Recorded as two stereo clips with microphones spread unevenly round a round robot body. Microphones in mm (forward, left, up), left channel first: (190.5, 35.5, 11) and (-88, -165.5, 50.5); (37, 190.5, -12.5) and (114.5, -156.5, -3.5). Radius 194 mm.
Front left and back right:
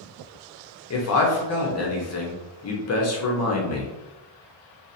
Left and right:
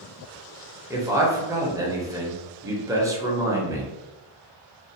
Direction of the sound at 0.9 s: 5° left.